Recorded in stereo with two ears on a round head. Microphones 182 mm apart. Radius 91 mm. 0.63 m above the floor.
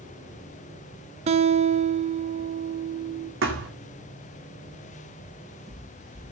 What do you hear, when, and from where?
1.3 s a guitar: 30° right (ahead or behind), 0.7 m
3.4 s a thud: 65° right (ahead or behind), 3 m
5.2 s footsteps: 35° right (ahead or behind), 6.5 m; by 6.3 s 30° right (ahead or behind), 5.5 m